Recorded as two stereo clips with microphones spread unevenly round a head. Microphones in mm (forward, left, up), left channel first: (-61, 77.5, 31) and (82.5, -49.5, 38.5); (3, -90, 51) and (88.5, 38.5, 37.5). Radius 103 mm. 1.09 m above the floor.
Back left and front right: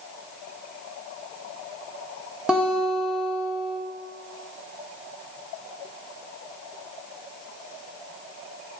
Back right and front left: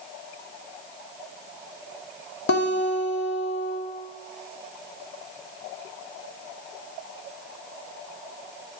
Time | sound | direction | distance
2.5 | a guitar | 125° right | 2 m